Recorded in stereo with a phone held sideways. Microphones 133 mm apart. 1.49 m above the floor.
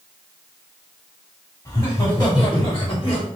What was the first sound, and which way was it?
Laughter, 25° left (ahead or behind).